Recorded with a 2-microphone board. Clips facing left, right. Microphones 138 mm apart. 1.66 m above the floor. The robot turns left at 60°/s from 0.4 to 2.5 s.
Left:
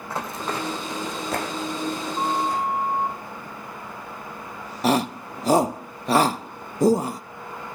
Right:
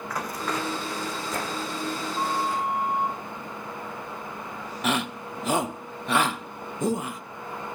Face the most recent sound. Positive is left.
turn(degrees=35)  # may be behind; listen again after turning